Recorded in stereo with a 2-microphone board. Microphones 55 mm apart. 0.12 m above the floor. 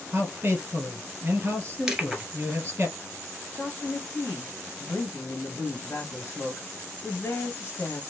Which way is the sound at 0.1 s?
40° right (ahead or behind).